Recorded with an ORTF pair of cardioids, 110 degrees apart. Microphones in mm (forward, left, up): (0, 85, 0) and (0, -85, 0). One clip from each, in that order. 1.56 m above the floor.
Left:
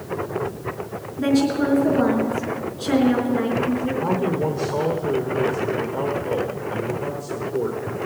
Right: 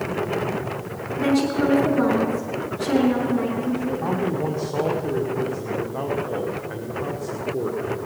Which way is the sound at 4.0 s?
5° right.